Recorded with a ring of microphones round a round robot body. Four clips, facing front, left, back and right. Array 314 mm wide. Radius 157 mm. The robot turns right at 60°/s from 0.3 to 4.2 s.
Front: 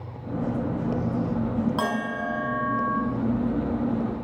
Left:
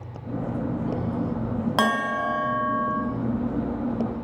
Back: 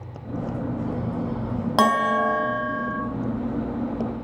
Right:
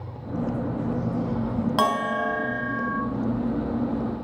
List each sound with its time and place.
1.8 s a bell: 160° left, 0.6 m; by 3.0 s 125° right, 0.6 m